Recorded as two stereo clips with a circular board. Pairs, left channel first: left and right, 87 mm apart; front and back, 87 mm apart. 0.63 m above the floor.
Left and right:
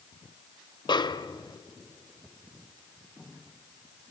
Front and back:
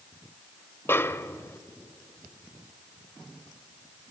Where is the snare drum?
60° left, 0.6 m.